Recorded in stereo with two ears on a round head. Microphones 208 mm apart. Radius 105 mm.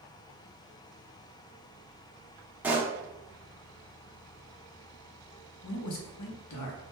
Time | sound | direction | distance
2.6 | a pop | 10° right (ahead or behind) | 0.6 m
5.6 | a man speaking | 75° left (ahead or behind) | 0.6 m